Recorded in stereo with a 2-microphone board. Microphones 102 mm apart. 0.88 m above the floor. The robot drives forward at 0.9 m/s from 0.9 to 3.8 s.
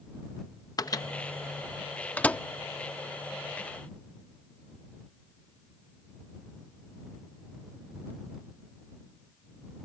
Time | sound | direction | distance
0.8 | a microwave | 40° left (ahead or behind) | ?